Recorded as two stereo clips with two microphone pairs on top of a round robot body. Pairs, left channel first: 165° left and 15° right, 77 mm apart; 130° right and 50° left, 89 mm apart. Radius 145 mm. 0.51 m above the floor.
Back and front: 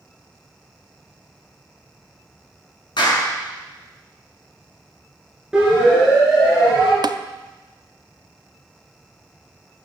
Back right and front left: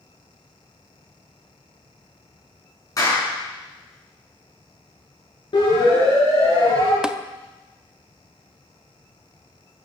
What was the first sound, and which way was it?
A clap, straight behind.